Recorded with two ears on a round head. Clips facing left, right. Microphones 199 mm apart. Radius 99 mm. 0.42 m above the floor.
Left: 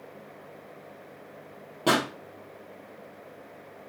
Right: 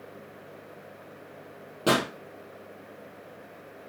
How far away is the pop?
About 1.9 m.